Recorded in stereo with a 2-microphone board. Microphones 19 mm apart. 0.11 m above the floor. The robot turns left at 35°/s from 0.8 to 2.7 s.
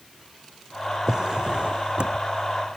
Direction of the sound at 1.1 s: 40° right.